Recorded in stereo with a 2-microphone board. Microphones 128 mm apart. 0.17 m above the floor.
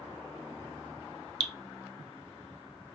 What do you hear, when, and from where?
1.4 s dripping: 40° right (ahead or behind), 0.7 m